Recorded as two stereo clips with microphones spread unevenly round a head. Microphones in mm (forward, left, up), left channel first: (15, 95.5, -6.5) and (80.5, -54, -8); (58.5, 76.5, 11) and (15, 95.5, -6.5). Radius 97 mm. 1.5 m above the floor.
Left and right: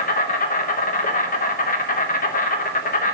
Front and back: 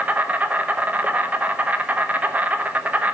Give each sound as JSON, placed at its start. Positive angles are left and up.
{"t": 0.0, "sound": "an insect", "azimuth_deg": 90, "distance_m": 1.0}